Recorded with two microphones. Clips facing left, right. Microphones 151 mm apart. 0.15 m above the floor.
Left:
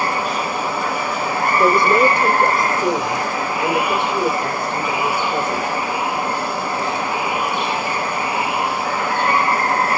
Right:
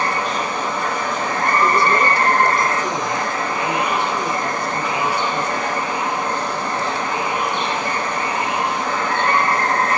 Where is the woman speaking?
50° left (ahead or behind), 3 m.